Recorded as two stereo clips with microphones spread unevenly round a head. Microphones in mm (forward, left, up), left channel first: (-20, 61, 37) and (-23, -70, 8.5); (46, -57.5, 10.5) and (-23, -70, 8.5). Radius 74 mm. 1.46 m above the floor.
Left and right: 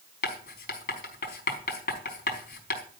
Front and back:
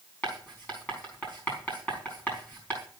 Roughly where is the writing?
Left.